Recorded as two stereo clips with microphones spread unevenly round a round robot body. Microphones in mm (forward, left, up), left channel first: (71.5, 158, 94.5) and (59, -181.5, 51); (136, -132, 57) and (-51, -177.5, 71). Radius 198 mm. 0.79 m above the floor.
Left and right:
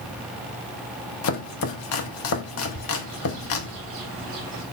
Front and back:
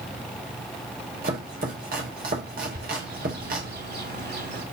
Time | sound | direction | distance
1.2 | chopping | 140° left | 0.9 m
2.7 | a bird | 140° right | 2.5 m